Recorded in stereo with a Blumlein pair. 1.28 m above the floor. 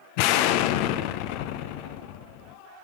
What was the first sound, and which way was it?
An explosion, 45° left.